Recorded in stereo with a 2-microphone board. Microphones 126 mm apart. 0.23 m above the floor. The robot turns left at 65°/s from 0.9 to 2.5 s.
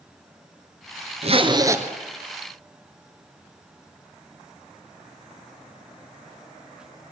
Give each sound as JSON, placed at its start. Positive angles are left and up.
{"t": 1.2, "sound": "a zipper", "azimuth_deg": -125, "distance_m": 1.8}